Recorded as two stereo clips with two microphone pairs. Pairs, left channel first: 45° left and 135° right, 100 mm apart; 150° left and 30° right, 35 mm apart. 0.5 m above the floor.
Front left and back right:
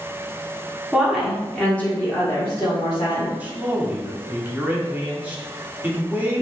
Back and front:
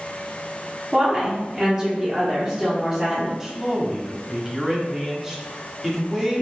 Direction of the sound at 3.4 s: 90° right.